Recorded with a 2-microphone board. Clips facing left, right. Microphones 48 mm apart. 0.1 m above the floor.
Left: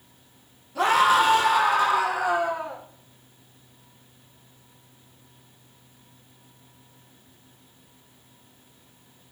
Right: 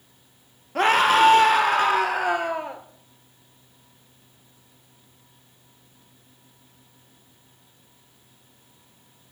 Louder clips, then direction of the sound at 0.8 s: Right 1 dB; 50° right (ahead or behind).